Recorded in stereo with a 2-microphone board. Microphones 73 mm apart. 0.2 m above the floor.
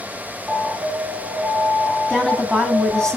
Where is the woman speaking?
10° left (ahead or behind), 1.4 m.